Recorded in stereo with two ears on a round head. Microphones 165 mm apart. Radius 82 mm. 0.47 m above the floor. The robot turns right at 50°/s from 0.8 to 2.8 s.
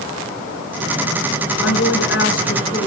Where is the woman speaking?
95° left, 5 m; by 2.9 s 155° left, 5 m.